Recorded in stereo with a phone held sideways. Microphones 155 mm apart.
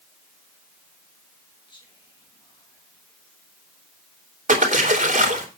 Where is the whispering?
30° left (ahead or behind), 1.8 m.